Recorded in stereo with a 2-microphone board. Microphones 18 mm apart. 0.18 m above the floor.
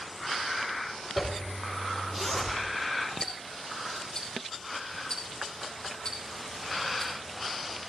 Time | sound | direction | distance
1.2 | a zipper | 10° right (ahead or behind) | 4.5 m
3.2 | ticking | 35° left (ahead or behind) | 4.5 m